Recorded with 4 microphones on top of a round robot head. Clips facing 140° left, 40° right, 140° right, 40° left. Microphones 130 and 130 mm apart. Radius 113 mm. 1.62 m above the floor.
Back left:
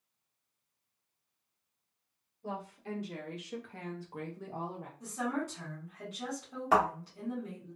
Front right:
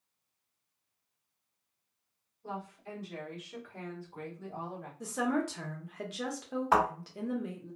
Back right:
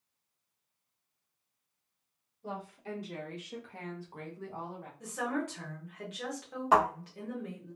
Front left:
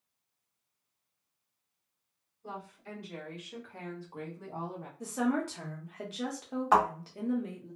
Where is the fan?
No fan in this recording.